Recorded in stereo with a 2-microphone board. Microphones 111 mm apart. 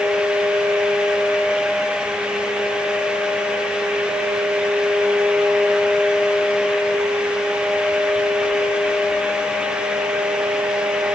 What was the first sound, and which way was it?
Only background noise.